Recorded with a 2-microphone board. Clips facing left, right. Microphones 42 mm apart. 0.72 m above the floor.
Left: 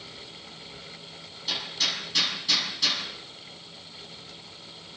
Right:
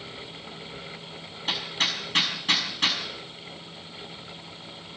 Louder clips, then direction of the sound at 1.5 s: Right 2 dB; 40° right (ahead or behind).